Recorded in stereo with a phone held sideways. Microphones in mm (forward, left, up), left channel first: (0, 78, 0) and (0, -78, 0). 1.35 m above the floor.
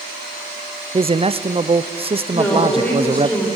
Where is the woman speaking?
10° left (ahead or behind), 6 m.